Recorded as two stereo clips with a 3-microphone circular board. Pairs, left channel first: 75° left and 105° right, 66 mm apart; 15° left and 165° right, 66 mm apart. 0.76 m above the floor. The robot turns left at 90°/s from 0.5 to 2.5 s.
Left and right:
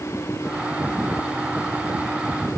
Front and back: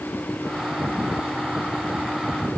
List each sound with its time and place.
Only background noise.